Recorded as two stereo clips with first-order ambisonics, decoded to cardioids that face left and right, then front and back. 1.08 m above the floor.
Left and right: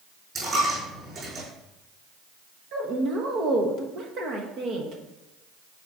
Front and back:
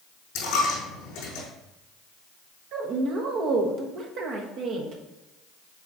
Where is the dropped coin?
30° right, 3.5 m.